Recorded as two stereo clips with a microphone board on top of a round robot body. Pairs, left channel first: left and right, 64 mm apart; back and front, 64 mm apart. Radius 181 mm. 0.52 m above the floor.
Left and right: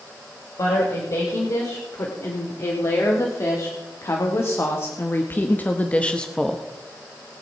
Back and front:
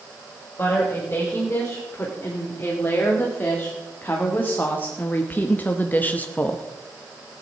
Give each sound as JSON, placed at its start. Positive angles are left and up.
{"t": 0.6, "sound": "a woman speaking", "azimuth_deg": 115, "distance_m": 3.5}